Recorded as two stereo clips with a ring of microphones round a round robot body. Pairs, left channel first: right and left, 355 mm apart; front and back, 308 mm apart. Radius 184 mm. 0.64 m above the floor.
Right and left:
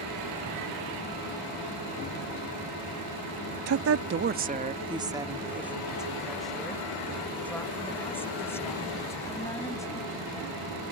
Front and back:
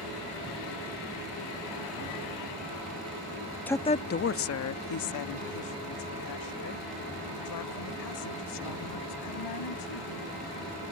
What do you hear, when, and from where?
3.7 s a woman speaking: 85° left; by 10.2 s 10° right